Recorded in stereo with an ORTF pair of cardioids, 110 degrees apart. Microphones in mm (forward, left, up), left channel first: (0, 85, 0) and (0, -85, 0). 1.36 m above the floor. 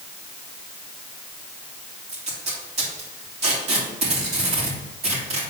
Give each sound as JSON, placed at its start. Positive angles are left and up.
{"t": 2.1, "sound": "tape being pulled", "azimuth_deg": -40, "distance_m": 3.5}